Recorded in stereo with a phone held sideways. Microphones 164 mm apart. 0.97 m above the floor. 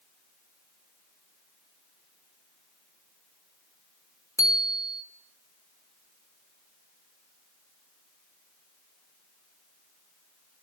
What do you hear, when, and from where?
4.4 s a bicycle bell: 20° left (ahead or behind), 2 m